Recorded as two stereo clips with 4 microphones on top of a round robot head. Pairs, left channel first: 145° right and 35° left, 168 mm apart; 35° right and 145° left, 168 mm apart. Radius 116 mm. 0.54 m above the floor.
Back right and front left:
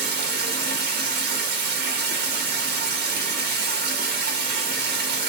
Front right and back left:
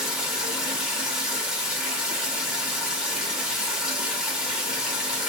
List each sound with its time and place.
0.0 s running water: 60° left, 0.8 m